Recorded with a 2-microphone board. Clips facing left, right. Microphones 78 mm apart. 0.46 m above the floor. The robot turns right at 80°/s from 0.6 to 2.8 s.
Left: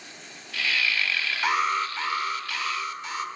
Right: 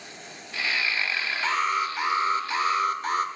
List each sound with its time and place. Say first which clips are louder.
1.4 s an alarm: left 1 dB; 155° left, 1.3 m; by 3.2 s 95° right, 1.3 m